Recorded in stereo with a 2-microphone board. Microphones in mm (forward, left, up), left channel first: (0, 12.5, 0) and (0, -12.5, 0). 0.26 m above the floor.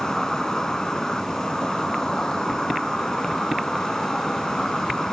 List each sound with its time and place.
0.0 s an insect: 25° left (ahead or behind), 0.8 m